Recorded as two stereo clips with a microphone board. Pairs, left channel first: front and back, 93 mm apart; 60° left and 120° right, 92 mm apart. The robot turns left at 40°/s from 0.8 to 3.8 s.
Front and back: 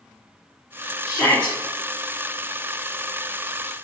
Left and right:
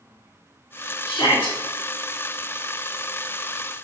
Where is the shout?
50° left, 1.1 m; by 1.6 s 25° left, 1.1 m.